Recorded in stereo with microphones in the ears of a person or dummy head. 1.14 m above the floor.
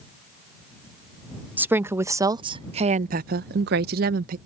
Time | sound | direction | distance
1.6 | a woman speaking | 10° right (ahead or behind) | ?